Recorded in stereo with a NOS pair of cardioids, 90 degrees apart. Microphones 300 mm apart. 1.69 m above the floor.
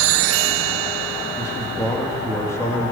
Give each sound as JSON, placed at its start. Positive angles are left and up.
{"t": 1.4, "sound": "a man speaking", "azimuth_deg": 10, "distance_m": 4.0}